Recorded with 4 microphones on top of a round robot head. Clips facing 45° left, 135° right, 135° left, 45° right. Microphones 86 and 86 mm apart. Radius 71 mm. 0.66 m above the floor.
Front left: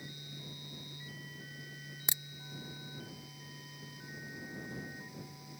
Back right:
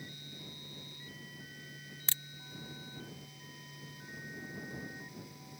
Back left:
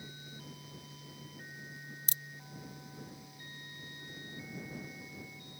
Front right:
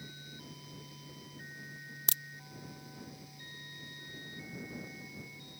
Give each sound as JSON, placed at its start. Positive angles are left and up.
{"t": 2.1, "sound": "a crack", "azimuth_deg": -30}